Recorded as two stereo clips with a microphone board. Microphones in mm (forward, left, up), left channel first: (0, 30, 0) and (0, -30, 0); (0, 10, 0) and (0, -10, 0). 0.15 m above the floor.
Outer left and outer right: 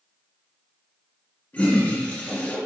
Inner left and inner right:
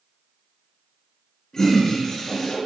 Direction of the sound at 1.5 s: 25° left (ahead or behind).